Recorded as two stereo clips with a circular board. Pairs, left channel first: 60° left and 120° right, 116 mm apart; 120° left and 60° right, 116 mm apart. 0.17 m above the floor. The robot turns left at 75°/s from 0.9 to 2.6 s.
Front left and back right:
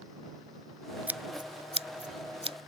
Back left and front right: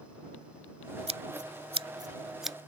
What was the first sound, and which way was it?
Scissors, 45° right.